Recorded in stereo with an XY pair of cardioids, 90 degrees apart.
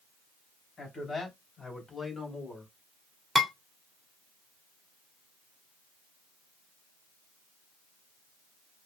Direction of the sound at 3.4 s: 5° right.